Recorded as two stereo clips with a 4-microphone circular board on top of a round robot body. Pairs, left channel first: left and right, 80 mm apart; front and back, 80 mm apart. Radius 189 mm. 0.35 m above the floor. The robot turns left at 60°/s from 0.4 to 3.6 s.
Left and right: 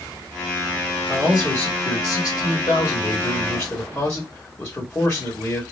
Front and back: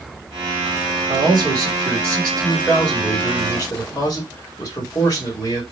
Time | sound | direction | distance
1.1 | a man speaking | straight behind | 2 m